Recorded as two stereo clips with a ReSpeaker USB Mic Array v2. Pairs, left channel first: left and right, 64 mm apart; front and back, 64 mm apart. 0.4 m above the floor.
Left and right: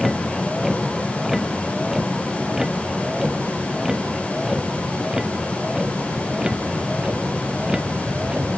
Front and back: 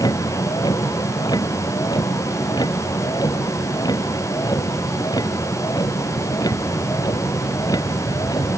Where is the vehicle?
Straight ahead; by 8.6 s 15° right.